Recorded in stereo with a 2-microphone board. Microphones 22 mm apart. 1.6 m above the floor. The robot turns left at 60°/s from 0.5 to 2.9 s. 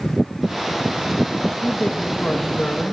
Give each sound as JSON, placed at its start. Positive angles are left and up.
{"t": 1.6, "sound": "a man speaking", "azimuth_deg": 140, "distance_m": 2.5}